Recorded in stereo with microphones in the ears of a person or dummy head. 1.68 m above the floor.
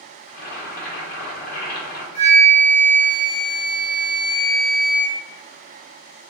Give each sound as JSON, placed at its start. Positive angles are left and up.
{"t": 0.3, "sound": "boiling", "side_deg": 55, "distance_m": 1.5}
{"t": 2.1, "sound": "a flute", "side_deg": 40, "distance_m": 1.0}